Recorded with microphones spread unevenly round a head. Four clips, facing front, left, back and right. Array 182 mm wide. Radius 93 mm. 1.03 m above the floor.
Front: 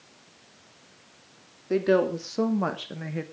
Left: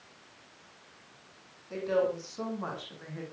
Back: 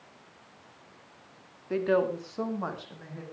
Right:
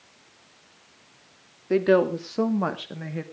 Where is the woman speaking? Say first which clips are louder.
Right 9 dB, front 4 dB; 65° right, 2.5 m; by 3.2 s 35° right, 2 m.